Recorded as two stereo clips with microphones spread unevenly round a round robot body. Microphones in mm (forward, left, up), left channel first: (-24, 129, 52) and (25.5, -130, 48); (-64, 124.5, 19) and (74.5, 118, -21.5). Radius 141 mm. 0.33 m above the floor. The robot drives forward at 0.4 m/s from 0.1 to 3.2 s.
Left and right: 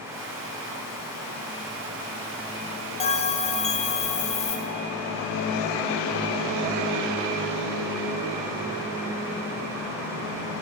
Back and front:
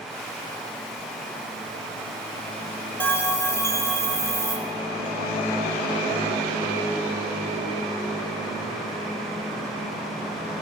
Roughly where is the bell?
Left.